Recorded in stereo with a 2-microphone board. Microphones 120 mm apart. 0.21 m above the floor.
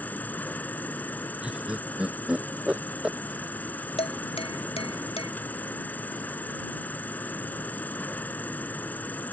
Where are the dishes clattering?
55° left (ahead or behind).